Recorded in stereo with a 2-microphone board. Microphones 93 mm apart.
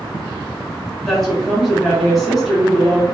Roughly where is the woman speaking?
Centre.